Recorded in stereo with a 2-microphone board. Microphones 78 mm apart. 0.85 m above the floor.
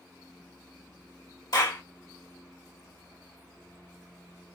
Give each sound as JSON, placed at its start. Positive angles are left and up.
{"t": 1.5, "sound": "a clap", "side_deg": 60, "distance_m": 1.8}